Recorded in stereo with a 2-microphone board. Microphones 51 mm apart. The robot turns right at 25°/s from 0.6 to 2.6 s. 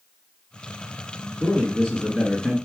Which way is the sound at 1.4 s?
25° left (ahead or behind).